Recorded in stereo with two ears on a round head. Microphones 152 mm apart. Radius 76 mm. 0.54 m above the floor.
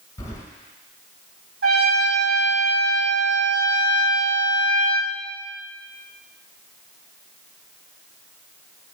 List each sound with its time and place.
0.2 s keys jangling: 20° left (ahead or behind), 1.6 m
1.6 s a trumpet: 80° right, 2.5 m